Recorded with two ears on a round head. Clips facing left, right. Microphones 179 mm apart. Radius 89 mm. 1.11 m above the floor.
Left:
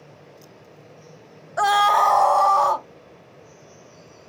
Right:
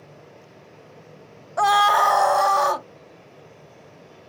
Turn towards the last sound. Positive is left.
turn(degrees=-25)  # may be behind; listen again after turning